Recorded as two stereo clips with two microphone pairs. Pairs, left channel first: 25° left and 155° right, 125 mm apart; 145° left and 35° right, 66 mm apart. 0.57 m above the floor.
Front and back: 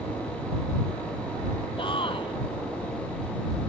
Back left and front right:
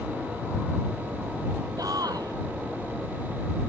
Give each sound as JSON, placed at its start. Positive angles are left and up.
{"t": 1.8, "sound": "a shout", "azimuth_deg": -20}